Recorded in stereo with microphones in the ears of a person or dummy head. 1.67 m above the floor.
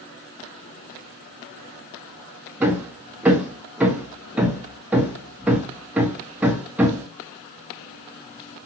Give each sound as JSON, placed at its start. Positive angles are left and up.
{"t": 2.6, "sound": "hammering", "side_deg": -5, "distance_m": 0.6}